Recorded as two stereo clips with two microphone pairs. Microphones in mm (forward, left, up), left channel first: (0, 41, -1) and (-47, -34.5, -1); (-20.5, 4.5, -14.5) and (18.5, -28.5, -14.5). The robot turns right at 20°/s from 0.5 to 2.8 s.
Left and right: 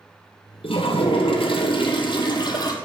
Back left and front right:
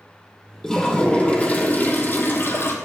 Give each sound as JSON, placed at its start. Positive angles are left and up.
{"t": 0.6, "sound": "a toilet flushing", "azimuth_deg": 60, "distance_m": 1.8}